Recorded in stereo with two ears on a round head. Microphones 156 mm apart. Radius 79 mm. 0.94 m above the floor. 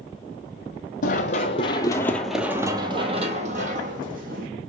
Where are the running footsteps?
50° left (ahead or behind), 1.4 m; by 4.5 s 60° right (ahead or behind), 2 m.